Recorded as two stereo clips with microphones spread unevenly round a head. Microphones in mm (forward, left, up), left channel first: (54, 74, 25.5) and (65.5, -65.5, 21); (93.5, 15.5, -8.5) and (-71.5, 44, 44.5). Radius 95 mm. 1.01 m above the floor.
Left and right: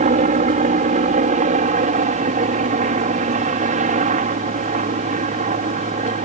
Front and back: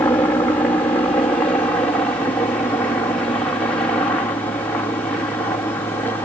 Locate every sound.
0.0 s a helicopter: 80° right